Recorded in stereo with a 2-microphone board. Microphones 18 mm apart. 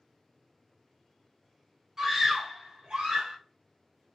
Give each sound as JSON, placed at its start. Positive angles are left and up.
{"t": 2.0, "sound": "a scream", "side_deg": -30, "distance_m": 0.9}